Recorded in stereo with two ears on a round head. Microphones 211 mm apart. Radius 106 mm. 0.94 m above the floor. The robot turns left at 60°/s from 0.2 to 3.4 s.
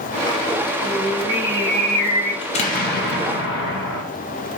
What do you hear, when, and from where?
0.8 s singing: 125° right, 1.3 m; by 2.3 s 145° left, 1.3 m
2.4 s an explosion: 150° left, 0.6 m; by 4.0 s 90° left, 0.6 m